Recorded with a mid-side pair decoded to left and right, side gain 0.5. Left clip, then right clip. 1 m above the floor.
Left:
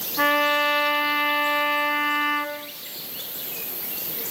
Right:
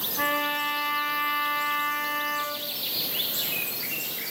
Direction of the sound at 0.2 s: 40° left.